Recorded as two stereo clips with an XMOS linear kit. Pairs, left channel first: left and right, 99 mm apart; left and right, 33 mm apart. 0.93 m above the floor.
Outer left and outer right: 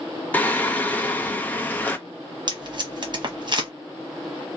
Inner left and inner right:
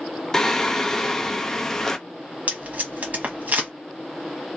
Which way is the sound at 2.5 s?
45° right (ahead or behind).